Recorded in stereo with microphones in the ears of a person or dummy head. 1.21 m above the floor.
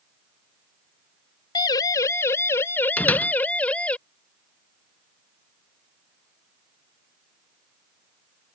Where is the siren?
20° left (ahead or behind); by 4.0 s 5° left (ahead or behind).